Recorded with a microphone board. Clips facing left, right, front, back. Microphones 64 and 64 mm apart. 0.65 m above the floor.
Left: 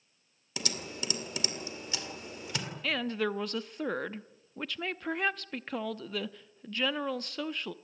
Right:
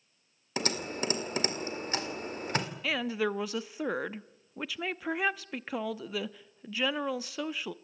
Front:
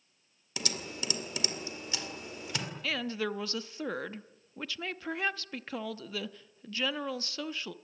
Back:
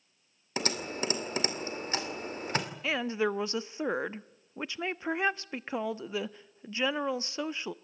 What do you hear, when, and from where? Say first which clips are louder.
0.6 s typing on a keyboard: right 6 dB, back 6 dB; 135° right, 2.5 m
2.8 s a woman speaking: left 1 dB, back 3 dB; 165° right, 0.6 m